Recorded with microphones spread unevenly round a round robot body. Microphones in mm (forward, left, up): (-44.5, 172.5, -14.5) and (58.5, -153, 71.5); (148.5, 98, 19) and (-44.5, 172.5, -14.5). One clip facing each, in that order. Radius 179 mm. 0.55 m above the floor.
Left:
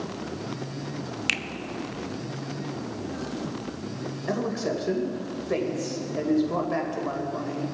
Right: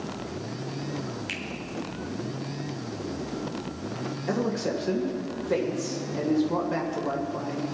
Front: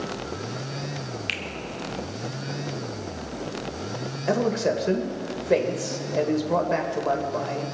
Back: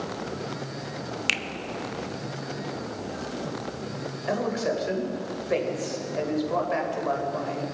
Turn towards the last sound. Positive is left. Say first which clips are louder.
# right 1 dB, front 4 dB
turn(degrees=20)